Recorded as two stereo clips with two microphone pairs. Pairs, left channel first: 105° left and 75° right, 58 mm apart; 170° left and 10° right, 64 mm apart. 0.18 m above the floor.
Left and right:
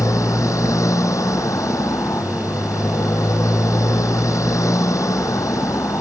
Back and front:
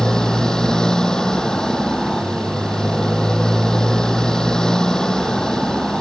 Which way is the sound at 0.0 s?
90° left.